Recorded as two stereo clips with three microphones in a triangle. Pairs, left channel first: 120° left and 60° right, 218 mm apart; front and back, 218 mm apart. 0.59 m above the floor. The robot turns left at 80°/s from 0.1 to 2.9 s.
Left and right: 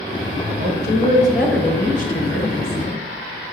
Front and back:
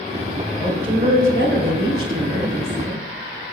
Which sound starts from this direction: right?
A woman speaking, at 0.6 s.